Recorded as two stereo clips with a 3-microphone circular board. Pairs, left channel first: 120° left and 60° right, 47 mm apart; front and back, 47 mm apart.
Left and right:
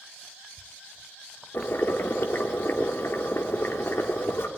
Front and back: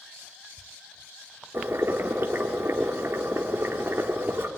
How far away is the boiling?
About 1.9 m.